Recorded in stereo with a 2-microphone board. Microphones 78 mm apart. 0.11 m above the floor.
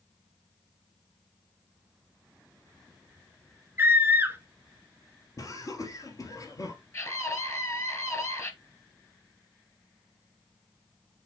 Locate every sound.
3.8 s a scream: 25° right (ahead or behind), 1.3 m
5.4 s laughter: 45° left (ahead or behind), 2 m
6.9 s a scream: 35° left (ahead or behind), 2.0 m